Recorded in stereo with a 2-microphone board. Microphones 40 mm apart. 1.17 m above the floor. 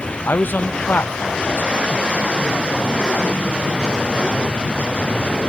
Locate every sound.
0.2 s a man speaking: 60° left (ahead or behind), 0.7 m